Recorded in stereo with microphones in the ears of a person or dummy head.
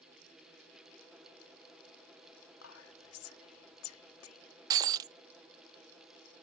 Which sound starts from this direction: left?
Whispering, at 2.6 s.